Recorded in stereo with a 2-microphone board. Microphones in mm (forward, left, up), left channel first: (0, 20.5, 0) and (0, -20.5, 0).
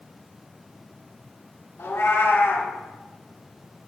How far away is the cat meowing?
About 1.0 m.